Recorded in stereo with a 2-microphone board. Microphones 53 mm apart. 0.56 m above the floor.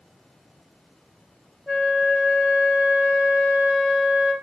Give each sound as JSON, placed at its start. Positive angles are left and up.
{"t": 1.7, "sound": "a flute", "side_deg": -5, "distance_m": 0.6}